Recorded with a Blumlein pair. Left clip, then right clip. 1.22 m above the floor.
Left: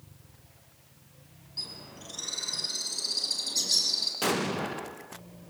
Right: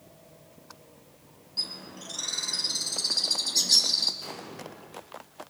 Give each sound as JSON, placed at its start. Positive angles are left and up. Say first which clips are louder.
{"t": 1.6, "sound": "a bird", "louder": "right 5 dB", "azimuth_deg": -10, "distance_m": 5.0}
{"t": 4.2, "sound": "an explosion", "louder": "left 11 dB", "azimuth_deg": 40, "distance_m": 1.1}